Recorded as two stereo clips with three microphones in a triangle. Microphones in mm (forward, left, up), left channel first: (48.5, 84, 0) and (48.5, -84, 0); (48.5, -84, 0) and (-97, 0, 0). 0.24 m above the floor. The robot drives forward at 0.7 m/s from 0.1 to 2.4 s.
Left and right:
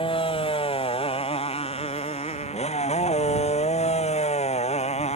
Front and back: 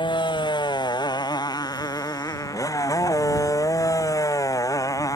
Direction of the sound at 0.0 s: 30° left.